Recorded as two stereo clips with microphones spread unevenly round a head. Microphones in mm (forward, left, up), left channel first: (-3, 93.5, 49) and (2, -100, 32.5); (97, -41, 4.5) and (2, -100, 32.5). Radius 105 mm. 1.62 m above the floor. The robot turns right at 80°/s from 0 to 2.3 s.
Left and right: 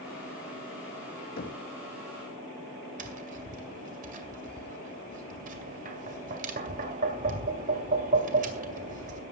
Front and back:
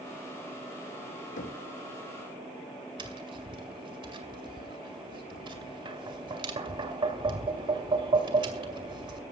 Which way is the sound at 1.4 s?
45° left.